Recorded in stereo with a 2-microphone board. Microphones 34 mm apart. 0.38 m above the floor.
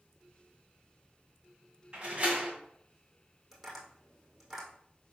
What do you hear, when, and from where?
1.9 s a door slam: 30° right (ahead or behind), 2 m
3.5 s tapping: 5° right (ahead or behind), 2.5 m